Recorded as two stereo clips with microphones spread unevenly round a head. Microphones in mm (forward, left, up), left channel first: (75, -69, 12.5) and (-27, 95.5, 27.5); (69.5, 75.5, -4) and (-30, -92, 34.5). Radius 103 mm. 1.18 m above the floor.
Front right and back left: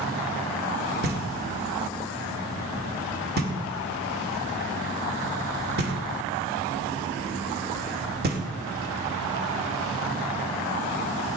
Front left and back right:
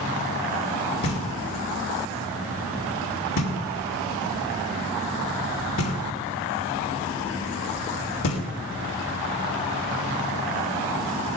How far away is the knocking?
About 2.5 m.